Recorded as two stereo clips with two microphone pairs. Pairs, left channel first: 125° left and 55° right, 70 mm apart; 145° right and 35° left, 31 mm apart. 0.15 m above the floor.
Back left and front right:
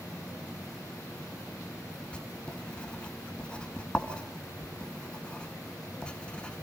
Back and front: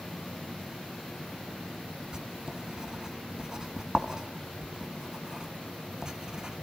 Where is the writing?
70° left, 1.7 m.